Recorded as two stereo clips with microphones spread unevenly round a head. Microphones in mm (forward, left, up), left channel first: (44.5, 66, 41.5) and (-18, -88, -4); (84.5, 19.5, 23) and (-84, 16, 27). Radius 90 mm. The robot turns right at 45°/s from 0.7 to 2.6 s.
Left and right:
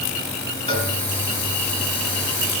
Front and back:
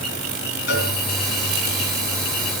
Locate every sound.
0.7 s a cowbell: 20° left, 3 m; by 0.9 s 30° left, 3 m